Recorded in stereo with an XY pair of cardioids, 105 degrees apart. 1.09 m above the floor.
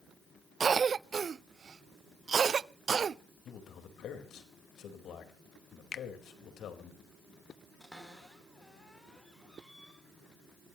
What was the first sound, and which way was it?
A cough, 40° right.